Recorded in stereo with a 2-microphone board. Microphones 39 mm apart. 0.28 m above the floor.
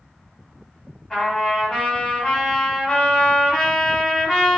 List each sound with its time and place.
1.1 s a trumpet: 15° left (ahead or behind), 1.5 m